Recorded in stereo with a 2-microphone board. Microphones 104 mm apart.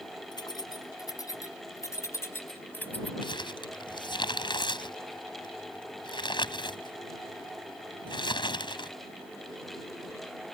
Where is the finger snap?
No finger snap in this recording.